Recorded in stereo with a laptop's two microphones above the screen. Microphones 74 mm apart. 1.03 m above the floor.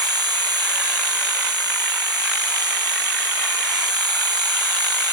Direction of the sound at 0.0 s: 70° right (ahead or behind).